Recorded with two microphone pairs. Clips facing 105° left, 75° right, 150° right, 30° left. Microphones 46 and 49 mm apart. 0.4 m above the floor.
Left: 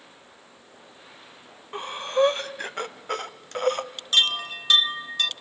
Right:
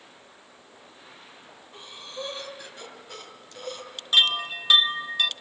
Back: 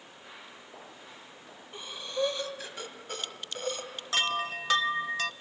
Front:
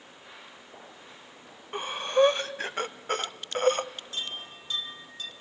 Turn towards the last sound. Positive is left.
turn(degrees=-155)